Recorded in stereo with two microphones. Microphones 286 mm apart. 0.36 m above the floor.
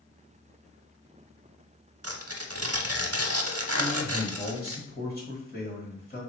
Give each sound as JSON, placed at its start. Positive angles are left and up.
{"t": 2.0, "sound": "tearing paper", "side_deg": -55, "distance_m": 0.6}
{"t": 3.8, "sound": "a man speaking", "side_deg": 30, "distance_m": 1.4}